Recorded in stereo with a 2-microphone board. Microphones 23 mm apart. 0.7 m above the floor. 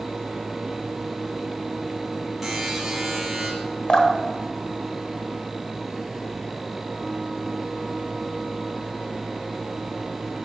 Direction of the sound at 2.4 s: 10° right (ahead or behind).